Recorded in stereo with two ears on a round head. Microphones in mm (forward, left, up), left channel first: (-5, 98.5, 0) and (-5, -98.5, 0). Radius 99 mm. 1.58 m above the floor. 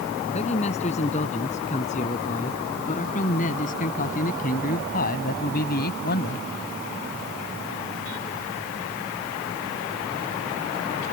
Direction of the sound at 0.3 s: 30° left (ahead or behind).